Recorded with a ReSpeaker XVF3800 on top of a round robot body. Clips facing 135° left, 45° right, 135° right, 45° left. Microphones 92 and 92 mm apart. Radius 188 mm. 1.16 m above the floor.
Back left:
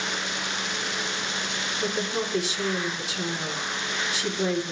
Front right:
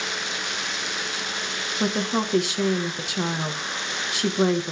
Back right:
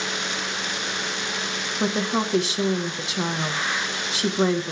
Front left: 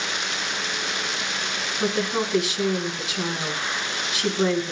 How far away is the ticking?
I don't hear ticking.